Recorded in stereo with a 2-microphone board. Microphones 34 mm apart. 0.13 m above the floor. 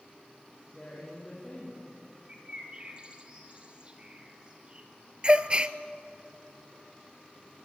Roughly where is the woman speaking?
Centre.